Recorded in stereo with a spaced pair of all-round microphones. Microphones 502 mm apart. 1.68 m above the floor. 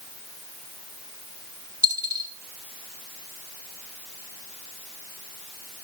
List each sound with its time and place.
1.8 s a dropped coin: 5° right (ahead or behind), 1.2 m